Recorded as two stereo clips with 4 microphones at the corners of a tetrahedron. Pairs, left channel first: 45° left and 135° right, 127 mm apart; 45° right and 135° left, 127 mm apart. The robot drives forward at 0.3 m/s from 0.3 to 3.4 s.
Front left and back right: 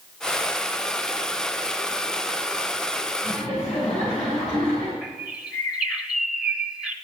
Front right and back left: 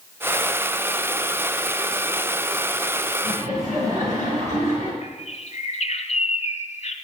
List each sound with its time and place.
3.2 s laughter: 135° left, 3.5 m
5.0 s a bird: 50° right, 0.9 m